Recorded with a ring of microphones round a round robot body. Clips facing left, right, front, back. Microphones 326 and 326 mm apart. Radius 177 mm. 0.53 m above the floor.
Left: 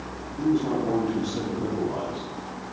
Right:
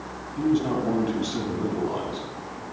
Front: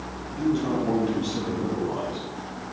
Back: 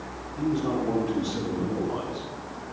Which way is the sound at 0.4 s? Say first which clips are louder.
Even, front 2 dB; 60° right.